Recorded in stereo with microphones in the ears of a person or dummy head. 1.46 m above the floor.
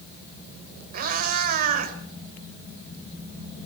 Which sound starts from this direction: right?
A cat meowing, at 0.9 s.